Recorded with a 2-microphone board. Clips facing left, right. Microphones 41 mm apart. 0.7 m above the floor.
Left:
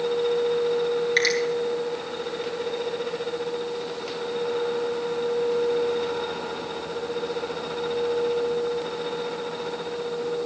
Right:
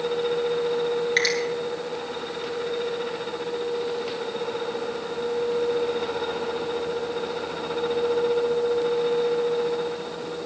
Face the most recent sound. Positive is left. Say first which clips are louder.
# left 1 dB
turn(degrees=-5)  # may be behind; listen again after turning